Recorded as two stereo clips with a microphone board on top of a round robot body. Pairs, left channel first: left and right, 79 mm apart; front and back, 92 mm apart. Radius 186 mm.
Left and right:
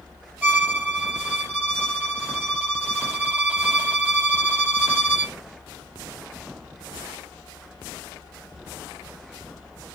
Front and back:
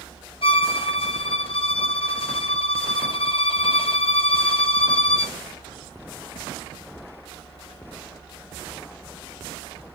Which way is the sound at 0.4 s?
15° right.